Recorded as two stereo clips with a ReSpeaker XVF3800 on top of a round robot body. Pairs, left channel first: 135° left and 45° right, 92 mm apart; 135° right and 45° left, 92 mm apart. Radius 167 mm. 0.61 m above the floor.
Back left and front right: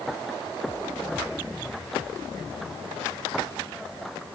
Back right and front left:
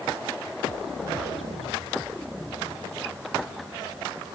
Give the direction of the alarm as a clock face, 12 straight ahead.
I don't hear an alarm.